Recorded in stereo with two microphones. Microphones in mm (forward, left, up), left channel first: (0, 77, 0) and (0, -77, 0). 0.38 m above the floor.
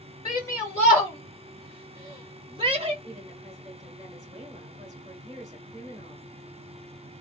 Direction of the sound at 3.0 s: 25° right (ahead or behind).